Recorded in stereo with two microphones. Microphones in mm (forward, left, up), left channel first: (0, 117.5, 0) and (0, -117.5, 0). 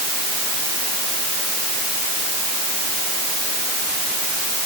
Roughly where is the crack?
I don't hear a crack.